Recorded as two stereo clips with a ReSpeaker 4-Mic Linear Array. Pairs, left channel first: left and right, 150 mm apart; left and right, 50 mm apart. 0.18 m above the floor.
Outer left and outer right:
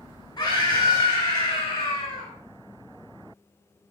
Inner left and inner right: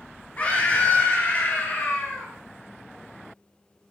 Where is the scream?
30° left (ahead or behind), 3 m.